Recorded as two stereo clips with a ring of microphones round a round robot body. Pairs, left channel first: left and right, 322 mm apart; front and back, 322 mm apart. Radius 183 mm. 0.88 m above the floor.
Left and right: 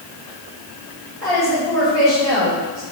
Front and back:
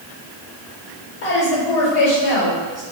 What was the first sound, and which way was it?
A woman speaking, 10° left.